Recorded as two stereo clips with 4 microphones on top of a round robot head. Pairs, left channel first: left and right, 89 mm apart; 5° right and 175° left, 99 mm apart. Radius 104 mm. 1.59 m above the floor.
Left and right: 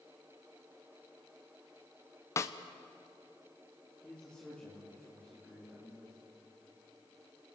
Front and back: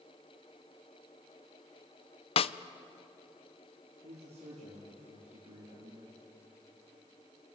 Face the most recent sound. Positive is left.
turn(degrees=170)